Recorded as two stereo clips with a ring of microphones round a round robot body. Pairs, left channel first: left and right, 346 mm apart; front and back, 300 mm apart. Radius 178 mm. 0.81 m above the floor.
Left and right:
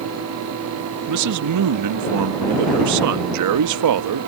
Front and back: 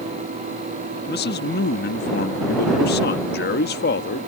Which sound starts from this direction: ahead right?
A man speaking, at 1.1 s.